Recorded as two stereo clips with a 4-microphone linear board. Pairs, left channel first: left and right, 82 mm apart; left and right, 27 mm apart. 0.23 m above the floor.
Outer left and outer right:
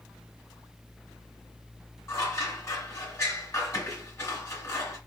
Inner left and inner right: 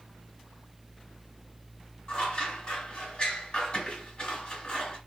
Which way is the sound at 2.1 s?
35° left (ahead or behind).